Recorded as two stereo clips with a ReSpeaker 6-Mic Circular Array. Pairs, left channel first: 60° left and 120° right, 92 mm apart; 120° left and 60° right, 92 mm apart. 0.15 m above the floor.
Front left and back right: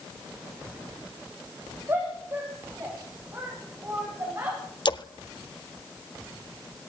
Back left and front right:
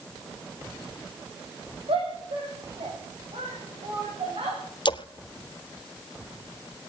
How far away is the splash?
About 0.8 m.